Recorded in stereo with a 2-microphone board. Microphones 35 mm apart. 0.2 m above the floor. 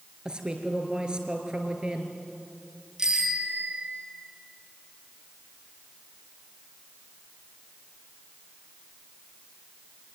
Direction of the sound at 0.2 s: 25° right (ahead or behind).